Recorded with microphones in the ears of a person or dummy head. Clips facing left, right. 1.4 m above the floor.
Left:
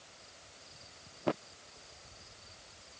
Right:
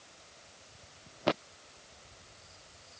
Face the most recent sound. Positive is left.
No sound to turn to.